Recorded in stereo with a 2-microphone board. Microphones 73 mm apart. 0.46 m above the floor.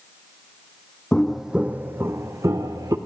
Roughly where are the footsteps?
Centre.